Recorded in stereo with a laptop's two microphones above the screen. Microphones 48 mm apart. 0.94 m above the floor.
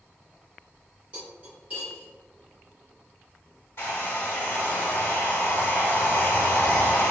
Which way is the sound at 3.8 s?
60° left (ahead or behind).